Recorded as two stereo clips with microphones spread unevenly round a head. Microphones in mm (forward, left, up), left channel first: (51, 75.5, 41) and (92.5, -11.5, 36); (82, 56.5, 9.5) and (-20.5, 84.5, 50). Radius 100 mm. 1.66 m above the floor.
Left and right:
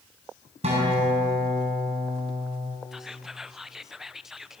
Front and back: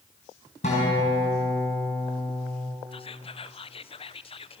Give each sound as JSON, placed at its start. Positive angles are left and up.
{"t": 0.6, "sound": "a guitar", "azimuth_deg": -65, "distance_m": 6.0}
{"t": 2.9, "sound": "whispering", "azimuth_deg": 20, "distance_m": 1.2}